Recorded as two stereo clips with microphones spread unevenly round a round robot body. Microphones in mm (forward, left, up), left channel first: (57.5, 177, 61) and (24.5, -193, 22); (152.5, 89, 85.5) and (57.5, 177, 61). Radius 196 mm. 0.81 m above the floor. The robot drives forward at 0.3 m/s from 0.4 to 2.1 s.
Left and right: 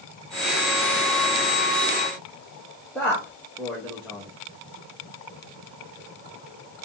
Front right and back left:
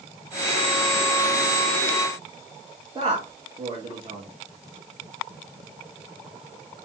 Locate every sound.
3.0 s a man speaking: 175° left, 1.2 m